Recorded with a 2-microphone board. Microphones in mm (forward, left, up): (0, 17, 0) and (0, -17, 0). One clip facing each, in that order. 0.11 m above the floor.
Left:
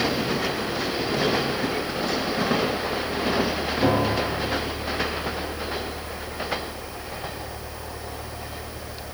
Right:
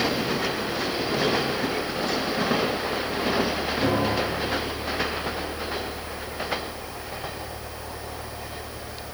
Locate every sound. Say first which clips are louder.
3.8 s a piano: left 2 dB; 20° left (ahead or behind), 3.5 m